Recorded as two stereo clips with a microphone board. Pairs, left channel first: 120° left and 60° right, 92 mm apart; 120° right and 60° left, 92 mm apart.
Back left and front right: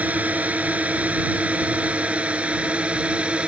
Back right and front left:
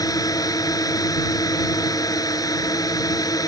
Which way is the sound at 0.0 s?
125° right.